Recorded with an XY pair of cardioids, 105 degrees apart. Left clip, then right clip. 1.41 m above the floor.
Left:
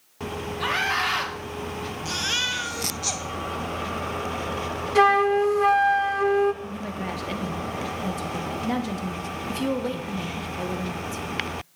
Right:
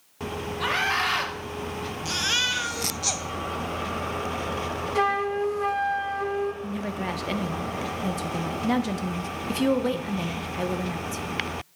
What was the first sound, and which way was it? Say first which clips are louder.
A scream: even; straight ahead.